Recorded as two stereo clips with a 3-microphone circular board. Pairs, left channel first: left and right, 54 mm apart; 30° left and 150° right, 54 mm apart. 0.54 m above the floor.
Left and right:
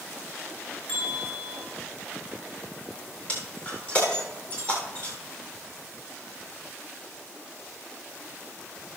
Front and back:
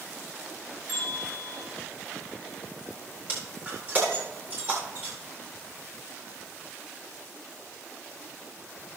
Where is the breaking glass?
150° left, 8 m.